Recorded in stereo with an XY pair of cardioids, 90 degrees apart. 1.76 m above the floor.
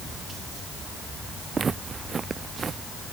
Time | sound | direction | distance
1.5 | footsteps | 40° right | ?